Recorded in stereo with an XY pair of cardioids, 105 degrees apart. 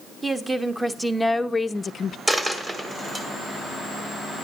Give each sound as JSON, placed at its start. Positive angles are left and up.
{"t": 0.2, "sound": "a woman speaking", "azimuth_deg": -15, "distance_m": 1.5}
{"t": 2.3, "sound": "a dropped coin", "azimuth_deg": -20, "distance_m": 2.0}